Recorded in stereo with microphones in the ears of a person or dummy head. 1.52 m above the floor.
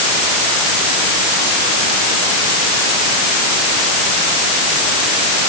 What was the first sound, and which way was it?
Only background noise.